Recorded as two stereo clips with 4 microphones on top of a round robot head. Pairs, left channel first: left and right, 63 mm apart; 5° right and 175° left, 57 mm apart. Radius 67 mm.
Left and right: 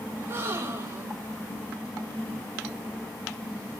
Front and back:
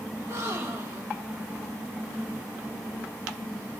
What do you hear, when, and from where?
0.1 s a gasp: 140° right, 1.4 m